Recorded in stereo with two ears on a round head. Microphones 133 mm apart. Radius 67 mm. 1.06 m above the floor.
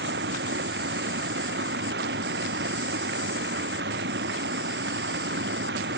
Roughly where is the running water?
Right.